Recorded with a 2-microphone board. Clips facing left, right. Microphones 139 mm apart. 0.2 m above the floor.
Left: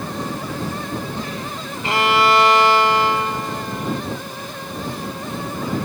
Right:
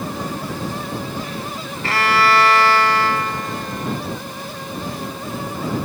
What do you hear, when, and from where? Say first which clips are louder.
1.8 s a violin: left 1 dB; 20° left (ahead or behind)